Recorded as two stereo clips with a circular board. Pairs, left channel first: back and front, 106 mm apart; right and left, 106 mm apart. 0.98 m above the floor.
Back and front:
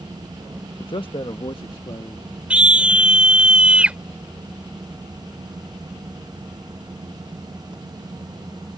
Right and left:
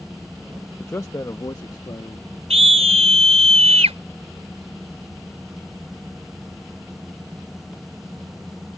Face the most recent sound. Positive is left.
turn(degrees=80)